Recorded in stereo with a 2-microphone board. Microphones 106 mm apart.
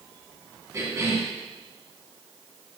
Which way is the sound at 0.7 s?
30° right (ahead or behind).